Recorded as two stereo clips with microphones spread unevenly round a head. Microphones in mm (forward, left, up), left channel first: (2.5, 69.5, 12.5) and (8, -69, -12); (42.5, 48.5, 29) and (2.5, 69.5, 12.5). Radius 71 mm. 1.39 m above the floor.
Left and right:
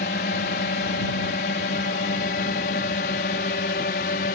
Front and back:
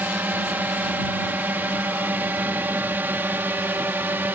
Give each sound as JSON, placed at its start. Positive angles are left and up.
{"t": 0.0, "sound": "a drone", "azimuth_deg": 110}